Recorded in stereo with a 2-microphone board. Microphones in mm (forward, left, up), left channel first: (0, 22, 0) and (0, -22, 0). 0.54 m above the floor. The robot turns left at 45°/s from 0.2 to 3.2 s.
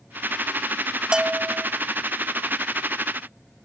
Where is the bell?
15° right (ahead or behind), 0.6 m; by 1.7 s 30° right (ahead or behind), 0.6 m.